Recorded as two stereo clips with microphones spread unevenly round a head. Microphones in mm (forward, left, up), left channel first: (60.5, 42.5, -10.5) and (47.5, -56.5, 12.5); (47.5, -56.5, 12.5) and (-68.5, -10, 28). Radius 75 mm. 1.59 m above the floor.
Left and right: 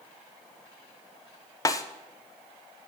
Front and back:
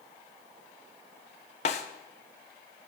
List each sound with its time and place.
1.6 s a snare drum: 25° left, 1.1 m